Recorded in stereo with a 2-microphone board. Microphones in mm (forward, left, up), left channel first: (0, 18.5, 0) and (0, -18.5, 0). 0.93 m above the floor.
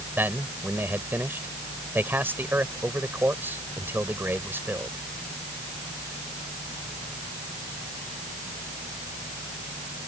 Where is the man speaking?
75° right (ahead or behind).